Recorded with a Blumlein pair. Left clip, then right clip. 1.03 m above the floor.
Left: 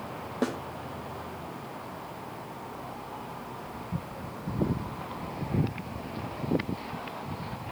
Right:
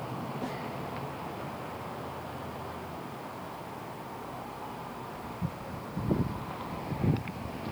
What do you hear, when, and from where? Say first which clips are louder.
0.4 s a snare drum: left 9 dB; 35° left, 1.1 m